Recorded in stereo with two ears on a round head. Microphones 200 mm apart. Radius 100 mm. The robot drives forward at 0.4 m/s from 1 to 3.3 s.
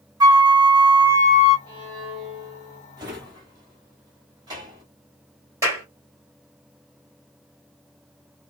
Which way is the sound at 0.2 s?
20° right (ahead or behind).